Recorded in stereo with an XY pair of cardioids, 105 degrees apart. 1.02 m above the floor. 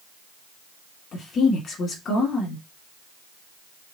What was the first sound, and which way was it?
A woman speaking, 60° left.